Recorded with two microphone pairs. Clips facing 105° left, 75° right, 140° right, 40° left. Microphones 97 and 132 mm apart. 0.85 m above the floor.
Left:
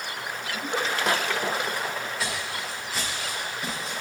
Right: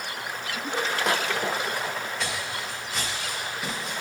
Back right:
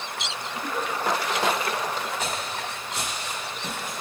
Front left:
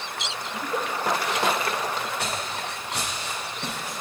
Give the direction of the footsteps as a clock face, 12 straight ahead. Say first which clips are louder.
Even, even; 11 o'clock.